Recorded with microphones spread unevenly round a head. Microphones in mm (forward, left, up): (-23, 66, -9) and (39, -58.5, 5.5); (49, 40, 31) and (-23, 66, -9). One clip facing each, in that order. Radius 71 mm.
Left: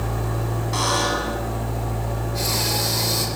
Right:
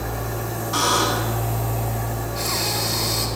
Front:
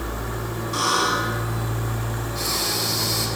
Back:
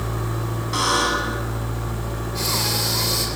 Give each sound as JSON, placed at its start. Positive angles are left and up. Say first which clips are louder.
{"t": 0.7, "sound": "a buzzer", "louder": "right 2 dB, back 1 dB", "azimuth_deg": -160, "distance_m": 10.0}
{"t": 2.4, "sound": "breathing", "louder": "left 2 dB, back 3 dB", "azimuth_deg": 165, "distance_m": 7.5}